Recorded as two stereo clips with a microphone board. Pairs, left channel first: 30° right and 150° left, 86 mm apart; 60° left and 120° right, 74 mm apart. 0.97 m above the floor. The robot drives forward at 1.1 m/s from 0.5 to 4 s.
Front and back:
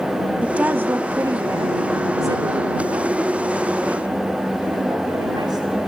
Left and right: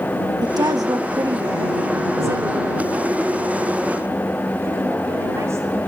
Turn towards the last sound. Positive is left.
turn(degrees=-170)